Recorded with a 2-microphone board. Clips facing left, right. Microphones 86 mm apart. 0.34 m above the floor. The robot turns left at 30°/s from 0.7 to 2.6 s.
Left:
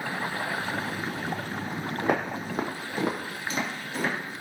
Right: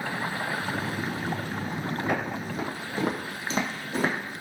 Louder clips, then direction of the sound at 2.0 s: Left 4 dB; 75° left (ahead or behind).